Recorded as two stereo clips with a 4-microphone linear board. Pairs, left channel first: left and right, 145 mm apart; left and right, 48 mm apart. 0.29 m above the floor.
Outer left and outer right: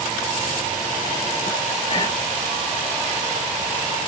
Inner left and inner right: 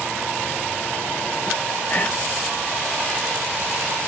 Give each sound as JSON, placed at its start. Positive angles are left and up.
{"t": 1.9, "sound": "whispering", "side_deg": 30, "distance_m": 1.1}